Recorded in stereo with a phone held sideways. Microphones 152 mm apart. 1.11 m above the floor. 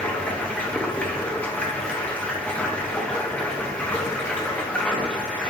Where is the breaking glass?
No breaking glass in this recording.